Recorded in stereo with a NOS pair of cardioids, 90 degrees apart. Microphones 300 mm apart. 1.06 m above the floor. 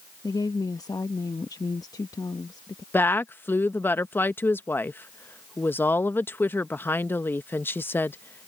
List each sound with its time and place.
0.2 s a woman speaking: 10° left
2.9 s a woman speaking: 5° left